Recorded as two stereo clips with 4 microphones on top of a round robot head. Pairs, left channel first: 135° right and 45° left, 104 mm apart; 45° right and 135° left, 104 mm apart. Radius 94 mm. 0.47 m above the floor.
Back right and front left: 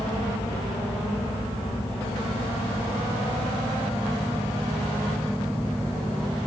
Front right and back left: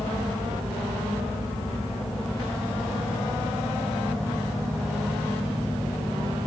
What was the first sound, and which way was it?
Only background noise.